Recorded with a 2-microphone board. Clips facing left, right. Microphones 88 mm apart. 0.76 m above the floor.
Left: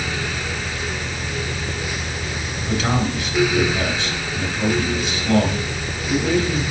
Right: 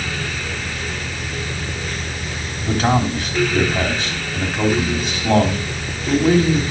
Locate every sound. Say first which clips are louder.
2.6 s a man speaking: right 4 dB; 40° right (ahead or behind), 4 m